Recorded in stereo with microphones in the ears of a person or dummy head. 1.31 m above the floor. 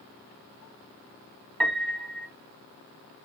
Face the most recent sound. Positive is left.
turn(degrees=10)  # may be behind; listen again after turning